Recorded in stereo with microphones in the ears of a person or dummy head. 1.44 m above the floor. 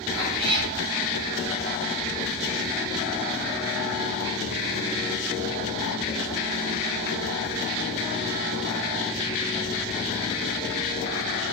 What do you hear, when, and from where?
0.1 s a cat meowing: 55° right (ahead or behind), 7 m